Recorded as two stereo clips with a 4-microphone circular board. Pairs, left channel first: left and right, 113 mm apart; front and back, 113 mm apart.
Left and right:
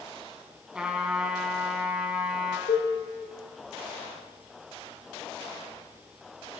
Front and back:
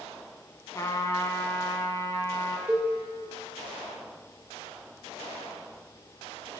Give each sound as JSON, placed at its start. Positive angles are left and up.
{"t": 0.8, "sound": "a trumpet", "azimuth_deg": -15, "distance_m": 1.6}
{"t": 2.7, "sound": "a cowbell", "azimuth_deg": 100, "distance_m": 5.5}